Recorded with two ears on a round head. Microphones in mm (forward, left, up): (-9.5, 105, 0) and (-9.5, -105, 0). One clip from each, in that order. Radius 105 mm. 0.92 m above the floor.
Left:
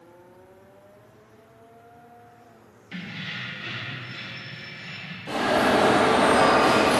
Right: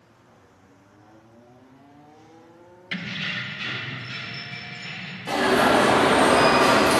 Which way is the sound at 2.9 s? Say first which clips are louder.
Right 6 dB; 55° right (ahead or behind).